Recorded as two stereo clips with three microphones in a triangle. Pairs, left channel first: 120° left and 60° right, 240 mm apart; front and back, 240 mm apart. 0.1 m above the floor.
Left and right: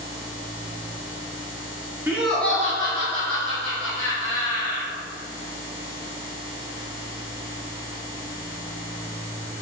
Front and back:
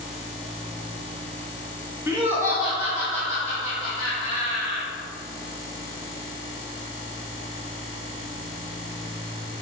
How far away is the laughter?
About 1.1 m.